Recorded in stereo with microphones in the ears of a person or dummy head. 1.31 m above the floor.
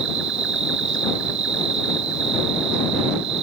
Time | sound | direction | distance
0.0 | an insect | 75° right (ahead or behind) | ?